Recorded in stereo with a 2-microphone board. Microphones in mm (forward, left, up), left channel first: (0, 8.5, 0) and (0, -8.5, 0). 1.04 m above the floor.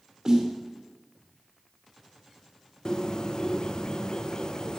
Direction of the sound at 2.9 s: 45° left (ahead or behind).